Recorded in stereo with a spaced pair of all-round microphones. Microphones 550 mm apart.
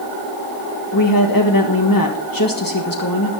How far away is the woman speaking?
About 1.6 m.